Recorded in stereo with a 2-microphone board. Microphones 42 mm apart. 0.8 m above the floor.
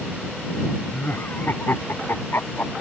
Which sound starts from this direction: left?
Laughter, at 0.9 s.